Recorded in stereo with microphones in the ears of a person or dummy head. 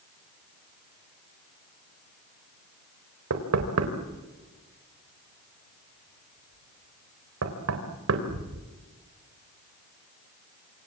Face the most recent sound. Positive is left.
turn(degrees=-80)